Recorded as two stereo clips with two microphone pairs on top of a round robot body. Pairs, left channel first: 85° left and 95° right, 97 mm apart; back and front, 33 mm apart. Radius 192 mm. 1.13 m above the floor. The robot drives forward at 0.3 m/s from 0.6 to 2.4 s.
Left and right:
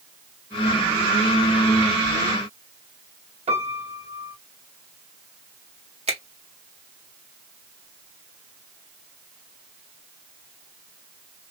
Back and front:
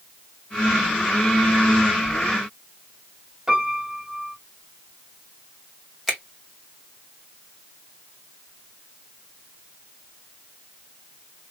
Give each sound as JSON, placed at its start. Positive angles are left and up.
{"t": 3.5, "sound": "a piano", "azimuth_deg": -80, "distance_m": 2.0}
{"t": 6.1, "sound": "a finger snap", "azimuth_deg": -90, "distance_m": 2.0}